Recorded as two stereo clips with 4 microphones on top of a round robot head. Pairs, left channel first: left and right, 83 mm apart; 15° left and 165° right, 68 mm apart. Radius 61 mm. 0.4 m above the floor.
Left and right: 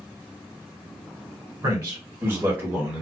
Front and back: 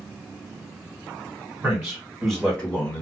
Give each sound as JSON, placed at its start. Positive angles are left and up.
{"t": 1.6, "sound": "a man speaking", "azimuth_deg": -115, "distance_m": 1.5}